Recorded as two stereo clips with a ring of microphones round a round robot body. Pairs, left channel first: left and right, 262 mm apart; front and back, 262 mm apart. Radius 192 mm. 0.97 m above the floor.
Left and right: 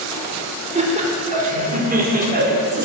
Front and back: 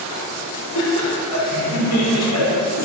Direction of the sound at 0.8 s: 25° right.